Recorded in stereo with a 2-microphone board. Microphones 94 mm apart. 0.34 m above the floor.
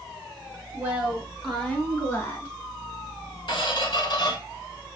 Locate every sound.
0.7 s a woman speaking: 20° right (ahead or behind), 0.9 m; by 2.5 s 35° left (ahead or behind), 1.5 m
3.5 s a squeak: 60° left (ahead or behind), 1.1 m